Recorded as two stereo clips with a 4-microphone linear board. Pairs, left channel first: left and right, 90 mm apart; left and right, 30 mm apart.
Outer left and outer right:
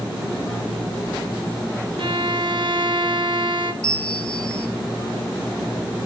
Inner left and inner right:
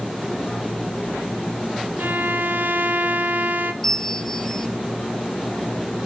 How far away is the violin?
About 0.9 m.